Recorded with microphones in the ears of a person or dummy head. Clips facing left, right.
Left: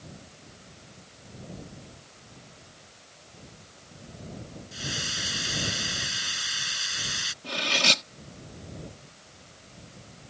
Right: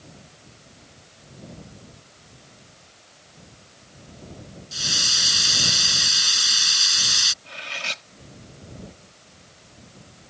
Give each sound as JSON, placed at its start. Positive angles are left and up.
{"t": 4.7, "sound": "a hiss", "side_deg": -60}
{"t": 7.4, "sound": "cutlery clinking", "side_deg": 60}